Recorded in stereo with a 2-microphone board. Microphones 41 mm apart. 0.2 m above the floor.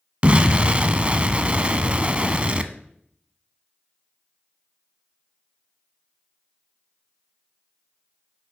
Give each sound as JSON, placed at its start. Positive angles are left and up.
{"t": 0.2, "sound": "an explosion", "side_deg": -30, "distance_m": 0.5}